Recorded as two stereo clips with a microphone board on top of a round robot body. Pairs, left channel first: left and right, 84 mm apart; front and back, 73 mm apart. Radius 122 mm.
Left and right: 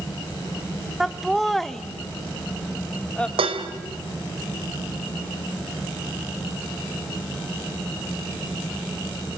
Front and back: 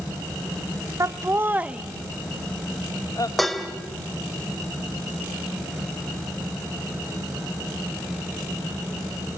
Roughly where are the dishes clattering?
Right.